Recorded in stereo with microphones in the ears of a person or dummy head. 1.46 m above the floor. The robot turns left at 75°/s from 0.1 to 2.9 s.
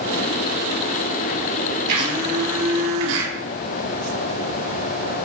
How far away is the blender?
About 2 m.